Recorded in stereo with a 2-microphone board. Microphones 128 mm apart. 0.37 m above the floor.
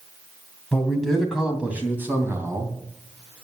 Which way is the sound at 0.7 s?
5° left (ahead or behind).